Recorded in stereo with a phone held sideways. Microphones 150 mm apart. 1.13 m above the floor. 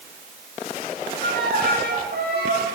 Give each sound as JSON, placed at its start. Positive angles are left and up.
{"t": 1.2, "sound": "a violin", "side_deg": -80, "distance_m": 9.5}